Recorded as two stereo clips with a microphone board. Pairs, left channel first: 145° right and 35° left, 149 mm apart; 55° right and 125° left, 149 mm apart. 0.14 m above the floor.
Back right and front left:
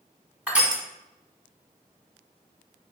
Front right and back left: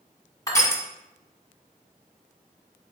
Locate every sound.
0.5 s crushing: 35° right, 1.1 m